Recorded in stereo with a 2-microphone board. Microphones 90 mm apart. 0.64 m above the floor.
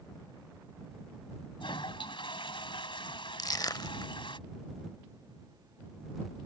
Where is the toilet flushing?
75° left (ahead or behind).